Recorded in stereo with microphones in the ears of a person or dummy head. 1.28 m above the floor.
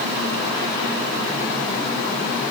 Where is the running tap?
I don't hear a running tap.